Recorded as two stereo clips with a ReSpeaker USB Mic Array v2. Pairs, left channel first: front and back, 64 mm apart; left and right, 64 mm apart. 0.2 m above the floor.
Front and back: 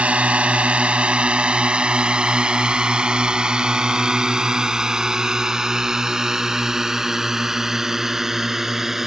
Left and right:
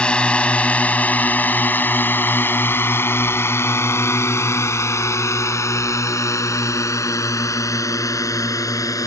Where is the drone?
140° left; by 9.1 s 95° left.